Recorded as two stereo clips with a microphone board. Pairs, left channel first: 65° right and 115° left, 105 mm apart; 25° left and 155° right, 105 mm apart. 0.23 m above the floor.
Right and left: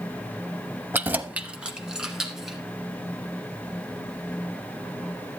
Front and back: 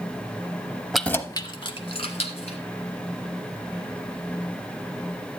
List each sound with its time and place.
0.9 s keys jangling: 120° left, 0.6 m; by 2.6 s 25° left, 2 m